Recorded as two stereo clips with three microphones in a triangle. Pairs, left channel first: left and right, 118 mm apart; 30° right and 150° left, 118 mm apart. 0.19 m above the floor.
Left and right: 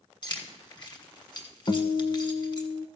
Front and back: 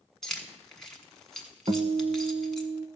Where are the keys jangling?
55° left, 1.5 m.